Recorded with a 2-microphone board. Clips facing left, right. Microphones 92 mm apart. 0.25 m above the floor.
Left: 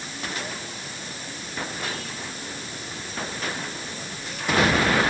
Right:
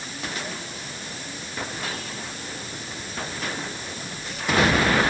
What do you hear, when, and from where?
Only background noise.